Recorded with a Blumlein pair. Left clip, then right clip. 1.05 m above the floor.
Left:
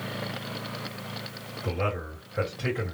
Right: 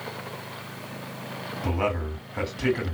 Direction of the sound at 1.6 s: 30° right.